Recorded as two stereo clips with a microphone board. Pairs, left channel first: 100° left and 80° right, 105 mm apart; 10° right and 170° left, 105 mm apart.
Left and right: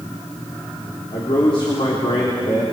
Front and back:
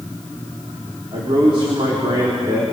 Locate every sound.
1.1 s a man speaking: 130° left, 3 m